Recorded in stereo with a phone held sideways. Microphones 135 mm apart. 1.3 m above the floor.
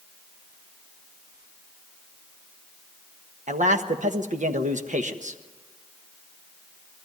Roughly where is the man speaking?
Right.